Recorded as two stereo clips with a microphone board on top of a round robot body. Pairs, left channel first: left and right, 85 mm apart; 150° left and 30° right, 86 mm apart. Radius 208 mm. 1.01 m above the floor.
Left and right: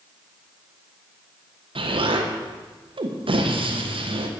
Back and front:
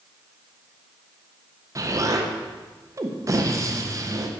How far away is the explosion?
About 1.4 m.